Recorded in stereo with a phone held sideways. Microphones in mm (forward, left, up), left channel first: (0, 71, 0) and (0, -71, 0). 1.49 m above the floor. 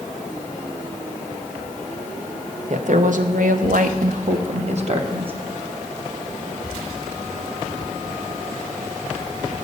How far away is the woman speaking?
About 1.0 m.